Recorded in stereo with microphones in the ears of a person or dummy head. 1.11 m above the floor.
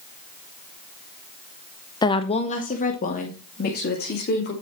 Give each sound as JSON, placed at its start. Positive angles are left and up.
{"t": 2.0, "sound": "a woman speaking", "side_deg": 20, "distance_m": 0.8}